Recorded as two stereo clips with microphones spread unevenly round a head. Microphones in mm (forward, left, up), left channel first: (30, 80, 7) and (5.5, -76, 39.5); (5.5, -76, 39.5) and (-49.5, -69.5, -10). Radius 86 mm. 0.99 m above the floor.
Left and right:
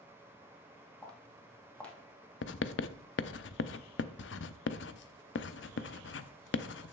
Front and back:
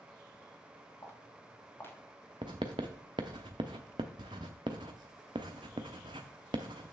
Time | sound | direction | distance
1.0 | footsteps | 5° right | 2 m
2.4 | writing | 95° left | 0.6 m